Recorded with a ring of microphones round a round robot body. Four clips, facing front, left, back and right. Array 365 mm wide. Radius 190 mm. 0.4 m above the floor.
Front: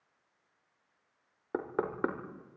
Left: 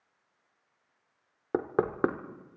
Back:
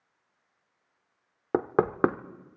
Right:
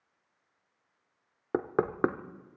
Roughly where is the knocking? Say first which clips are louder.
Left 1 dB, back 9 dB; behind.